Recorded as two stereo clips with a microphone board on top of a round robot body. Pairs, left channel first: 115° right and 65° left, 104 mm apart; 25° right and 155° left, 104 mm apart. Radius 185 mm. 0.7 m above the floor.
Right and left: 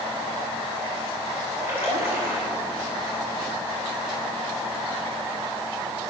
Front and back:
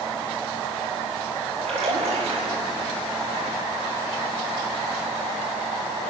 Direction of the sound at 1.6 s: 140° left.